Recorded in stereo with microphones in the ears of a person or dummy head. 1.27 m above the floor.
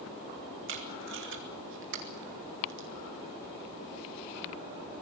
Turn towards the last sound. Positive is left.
turn(degrees=-65)  # may be behind; listen again after turning